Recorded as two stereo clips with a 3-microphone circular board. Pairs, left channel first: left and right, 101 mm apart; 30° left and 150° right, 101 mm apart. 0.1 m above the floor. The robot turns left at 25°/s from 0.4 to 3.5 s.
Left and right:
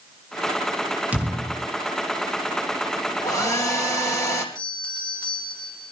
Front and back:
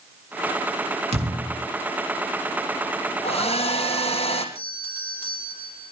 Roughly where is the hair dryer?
Ahead left.